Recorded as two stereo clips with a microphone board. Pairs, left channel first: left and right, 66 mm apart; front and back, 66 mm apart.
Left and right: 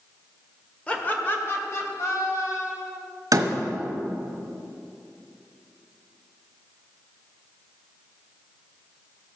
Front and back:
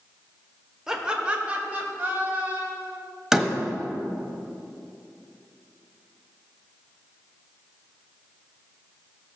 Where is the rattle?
I don't hear a rattle.